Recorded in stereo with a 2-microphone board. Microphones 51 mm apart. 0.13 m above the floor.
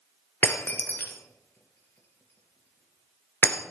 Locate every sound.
0.4 s breaking glass: 45° left (ahead or behind), 1.3 m